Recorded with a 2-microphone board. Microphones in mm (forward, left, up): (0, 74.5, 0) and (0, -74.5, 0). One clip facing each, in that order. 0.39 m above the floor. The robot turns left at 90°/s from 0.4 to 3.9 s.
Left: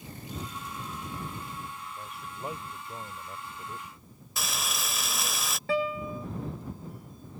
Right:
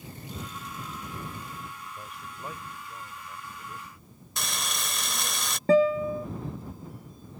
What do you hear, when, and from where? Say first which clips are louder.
2.0 s a man speaking: left 2 dB; 10° right (ahead or behind); by 5.4 s 10° left (ahead or behind)
4.4 s frying: even; 5° left (ahead or behind)
5.7 s a guitar: right 9 dB; 40° right (ahead or behind)